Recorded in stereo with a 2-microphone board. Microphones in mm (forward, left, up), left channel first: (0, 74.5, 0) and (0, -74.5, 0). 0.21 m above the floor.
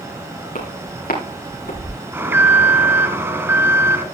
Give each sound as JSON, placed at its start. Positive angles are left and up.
{"t": 0.6, "sound": "footsteps", "side_deg": 65, "distance_m": 8.5}
{"t": 2.1, "sound": "an alarm", "side_deg": -15, "distance_m": 2.5}